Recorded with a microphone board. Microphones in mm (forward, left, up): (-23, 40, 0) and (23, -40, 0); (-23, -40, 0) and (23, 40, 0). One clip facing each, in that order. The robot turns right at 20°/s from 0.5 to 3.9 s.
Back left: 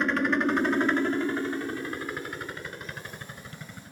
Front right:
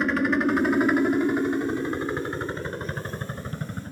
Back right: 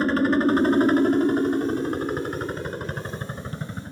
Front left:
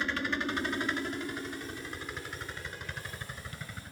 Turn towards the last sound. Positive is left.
turn(degrees=-80)